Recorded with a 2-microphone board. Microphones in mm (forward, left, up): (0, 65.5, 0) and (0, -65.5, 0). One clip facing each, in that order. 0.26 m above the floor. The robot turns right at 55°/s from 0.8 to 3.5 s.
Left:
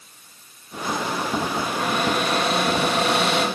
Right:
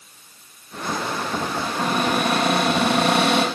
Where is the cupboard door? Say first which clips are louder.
Right 1 dB; 155° right, 5.5 m; by 3.5 s 55° right, 5.5 m.